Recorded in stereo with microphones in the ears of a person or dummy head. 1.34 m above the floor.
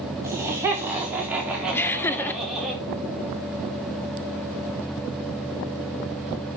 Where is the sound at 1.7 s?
10° left (ahead or behind), 0.6 m.